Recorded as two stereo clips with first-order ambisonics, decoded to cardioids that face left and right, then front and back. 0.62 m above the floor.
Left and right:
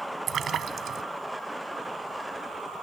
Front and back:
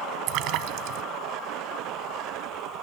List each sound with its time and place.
0.3 s a splash: 150° right